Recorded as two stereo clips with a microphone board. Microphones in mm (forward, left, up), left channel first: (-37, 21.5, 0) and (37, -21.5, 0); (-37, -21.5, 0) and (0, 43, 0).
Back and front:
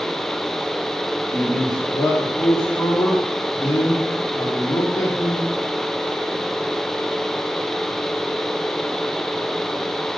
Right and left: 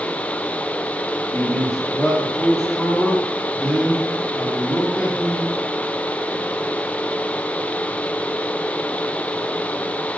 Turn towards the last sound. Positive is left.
turn(degrees=140)